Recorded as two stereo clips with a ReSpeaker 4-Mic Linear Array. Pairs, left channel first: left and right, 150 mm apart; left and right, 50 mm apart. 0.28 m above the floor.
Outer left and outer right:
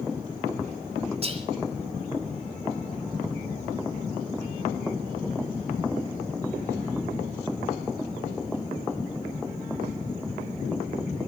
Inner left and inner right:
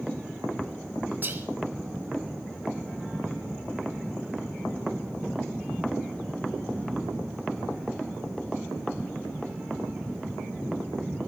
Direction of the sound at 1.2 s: 40° right (ahead or behind).